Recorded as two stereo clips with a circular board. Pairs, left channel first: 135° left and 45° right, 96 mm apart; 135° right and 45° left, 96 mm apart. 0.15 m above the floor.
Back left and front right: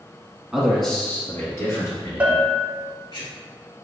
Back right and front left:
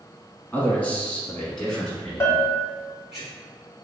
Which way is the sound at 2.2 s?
100° right.